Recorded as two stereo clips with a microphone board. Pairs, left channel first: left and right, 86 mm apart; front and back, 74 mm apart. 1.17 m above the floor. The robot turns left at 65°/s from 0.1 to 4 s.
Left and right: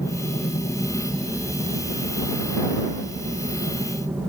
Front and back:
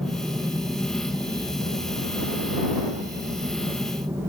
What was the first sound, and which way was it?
An aircraft, 110° left.